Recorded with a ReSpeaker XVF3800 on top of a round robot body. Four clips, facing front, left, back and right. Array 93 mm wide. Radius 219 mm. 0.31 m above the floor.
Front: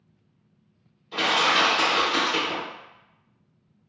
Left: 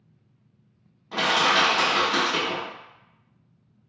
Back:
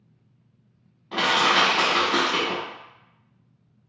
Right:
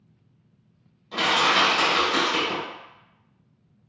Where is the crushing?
155° left, 1.1 m.